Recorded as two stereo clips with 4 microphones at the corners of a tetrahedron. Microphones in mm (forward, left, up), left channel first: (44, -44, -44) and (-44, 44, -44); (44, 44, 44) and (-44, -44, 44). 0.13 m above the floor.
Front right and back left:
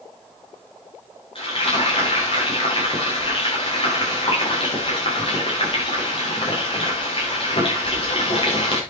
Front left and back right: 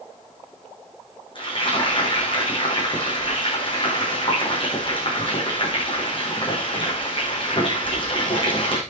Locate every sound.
1.4 s frying: 5° right, 7.5 m